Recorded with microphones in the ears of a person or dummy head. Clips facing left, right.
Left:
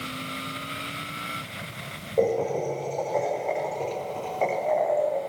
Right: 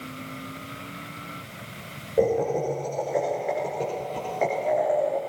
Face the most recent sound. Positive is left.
turn(degrees=-30)  # may be behind; listen again after turning